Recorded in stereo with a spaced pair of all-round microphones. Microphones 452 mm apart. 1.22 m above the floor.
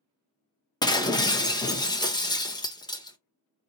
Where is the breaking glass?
10° left (ahead or behind), 0.5 m.